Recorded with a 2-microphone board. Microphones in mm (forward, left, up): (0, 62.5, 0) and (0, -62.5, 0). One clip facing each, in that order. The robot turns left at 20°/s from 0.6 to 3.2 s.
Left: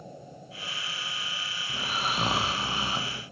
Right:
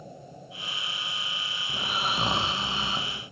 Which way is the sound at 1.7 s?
170° right.